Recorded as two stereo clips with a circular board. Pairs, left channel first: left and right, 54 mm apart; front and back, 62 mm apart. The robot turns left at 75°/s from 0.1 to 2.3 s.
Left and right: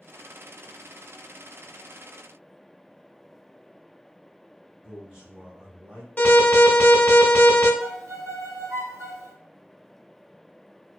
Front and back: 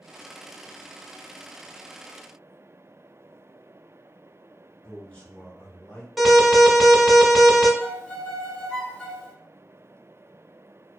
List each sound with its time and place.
4.8 s a man speaking: 40° right, 1.3 m
6.2 s an alarm: 95° left, 0.8 m
7.8 s a violin: 80° right, 1.3 m